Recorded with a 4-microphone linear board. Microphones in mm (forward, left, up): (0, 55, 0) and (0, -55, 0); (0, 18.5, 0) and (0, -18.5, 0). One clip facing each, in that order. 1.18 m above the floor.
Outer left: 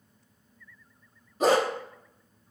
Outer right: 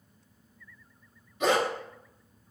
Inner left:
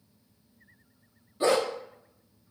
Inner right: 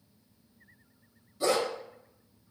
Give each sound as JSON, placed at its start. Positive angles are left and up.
{"t": 1.4, "sound": "a dog barking", "side_deg": 40, "distance_m": 0.7}